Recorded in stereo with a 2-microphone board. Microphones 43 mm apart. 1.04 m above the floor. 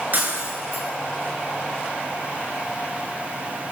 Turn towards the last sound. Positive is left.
turn(degrees=-45)  # may be behind; listen again after turning